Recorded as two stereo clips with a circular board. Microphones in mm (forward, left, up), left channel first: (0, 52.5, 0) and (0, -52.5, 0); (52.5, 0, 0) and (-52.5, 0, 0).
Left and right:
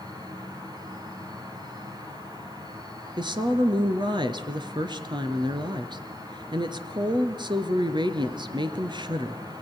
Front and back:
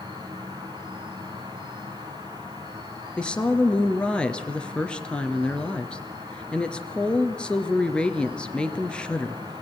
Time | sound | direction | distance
0.0 | an insect | 135° right | 3.5 m
3.2 | a woman speaking | 80° right | 1.5 m